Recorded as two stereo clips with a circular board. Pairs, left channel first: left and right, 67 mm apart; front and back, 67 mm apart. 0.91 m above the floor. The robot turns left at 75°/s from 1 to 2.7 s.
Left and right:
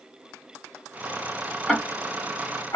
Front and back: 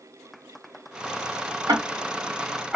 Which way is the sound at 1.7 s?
170° left.